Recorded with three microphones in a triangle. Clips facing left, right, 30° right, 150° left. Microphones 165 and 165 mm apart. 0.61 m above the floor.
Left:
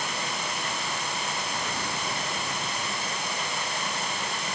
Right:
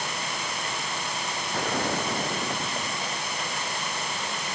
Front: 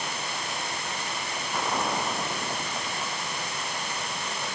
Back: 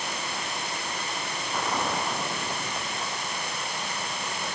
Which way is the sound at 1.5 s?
115° right.